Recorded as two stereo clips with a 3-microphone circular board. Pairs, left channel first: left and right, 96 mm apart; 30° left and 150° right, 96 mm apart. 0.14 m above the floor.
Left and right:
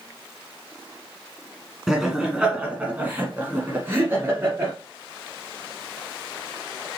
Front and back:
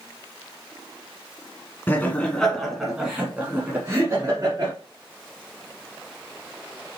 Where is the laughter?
10° right, 1.4 m; by 4.7 s 135° right, 1.7 m.